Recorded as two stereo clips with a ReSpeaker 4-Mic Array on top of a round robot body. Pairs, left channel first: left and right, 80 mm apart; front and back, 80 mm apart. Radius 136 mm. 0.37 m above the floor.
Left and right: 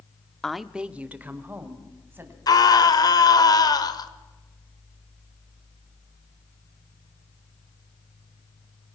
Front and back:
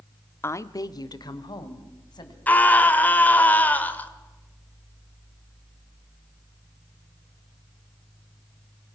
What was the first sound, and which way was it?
A woman speaking, 10° left.